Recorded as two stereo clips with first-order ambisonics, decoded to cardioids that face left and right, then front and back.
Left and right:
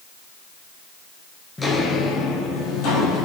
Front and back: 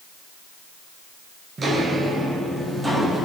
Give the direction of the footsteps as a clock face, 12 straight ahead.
7 o'clock.